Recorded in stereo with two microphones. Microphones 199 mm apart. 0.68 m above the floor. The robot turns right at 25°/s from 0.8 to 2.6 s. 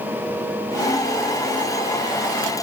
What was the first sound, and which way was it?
Only background noise.